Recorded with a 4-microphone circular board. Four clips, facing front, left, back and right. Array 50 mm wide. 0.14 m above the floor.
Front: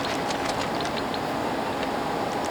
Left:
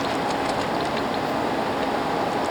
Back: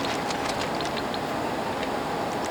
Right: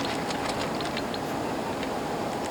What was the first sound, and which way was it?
Only background noise.